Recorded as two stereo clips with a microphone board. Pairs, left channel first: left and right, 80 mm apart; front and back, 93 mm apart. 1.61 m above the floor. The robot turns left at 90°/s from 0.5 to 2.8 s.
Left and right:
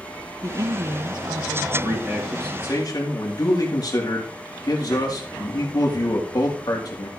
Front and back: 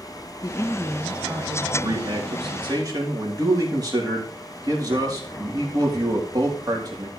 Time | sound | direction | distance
0.4 | a woman speaking | 45° right | 1.1 m
1.7 | a man speaking | 130° right | 4 m